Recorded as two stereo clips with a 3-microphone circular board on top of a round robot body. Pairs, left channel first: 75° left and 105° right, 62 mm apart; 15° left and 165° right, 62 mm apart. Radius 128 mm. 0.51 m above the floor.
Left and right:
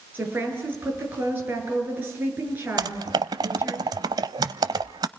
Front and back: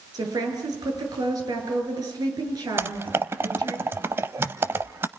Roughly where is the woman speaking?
Behind.